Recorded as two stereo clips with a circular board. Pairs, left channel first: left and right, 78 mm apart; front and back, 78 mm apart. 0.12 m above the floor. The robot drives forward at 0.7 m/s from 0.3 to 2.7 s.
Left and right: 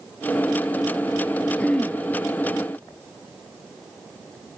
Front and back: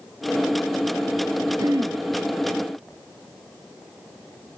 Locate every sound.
1.6 s throat clearing: 160° left, 1.5 m; by 2.0 s 165° left, 1.7 m